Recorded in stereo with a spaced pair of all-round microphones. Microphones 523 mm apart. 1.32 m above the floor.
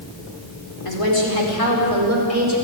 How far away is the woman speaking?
About 4.5 m.